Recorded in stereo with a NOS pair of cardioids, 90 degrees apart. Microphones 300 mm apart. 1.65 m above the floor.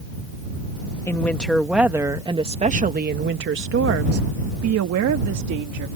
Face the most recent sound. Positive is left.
turn(degrees=-75)